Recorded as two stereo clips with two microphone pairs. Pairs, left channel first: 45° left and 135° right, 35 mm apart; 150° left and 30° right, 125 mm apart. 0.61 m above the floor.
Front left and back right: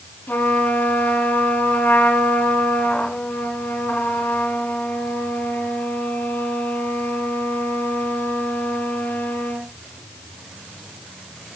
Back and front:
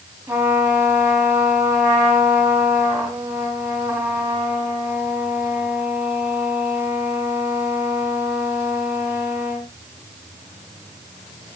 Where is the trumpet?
45° left, 2 m.